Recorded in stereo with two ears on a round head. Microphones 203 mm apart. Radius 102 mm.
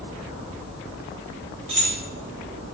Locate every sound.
1.7 s keys jangling: 25° right (ahead or behind), 2.5 m